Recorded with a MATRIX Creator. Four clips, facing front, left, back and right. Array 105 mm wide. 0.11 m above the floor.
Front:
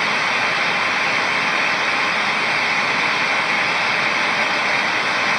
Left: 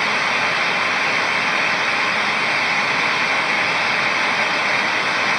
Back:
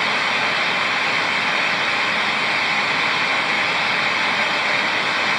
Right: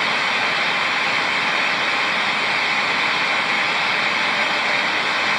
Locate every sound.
Only background noise.